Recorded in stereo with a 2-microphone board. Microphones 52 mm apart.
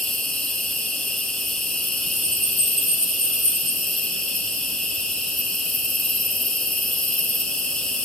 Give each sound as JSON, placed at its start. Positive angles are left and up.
{"t": 0.0, "sound": "an insect", "side_deg": 5, "distance_m": 5.5}